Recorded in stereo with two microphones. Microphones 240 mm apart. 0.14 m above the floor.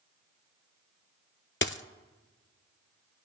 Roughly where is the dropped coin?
Left.